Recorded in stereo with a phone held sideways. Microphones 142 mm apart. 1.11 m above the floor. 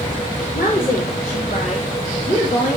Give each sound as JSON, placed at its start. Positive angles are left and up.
{"t": 0.5, "sound": "a woman speaking", "side_deg": 60, "distance_m": 3.0}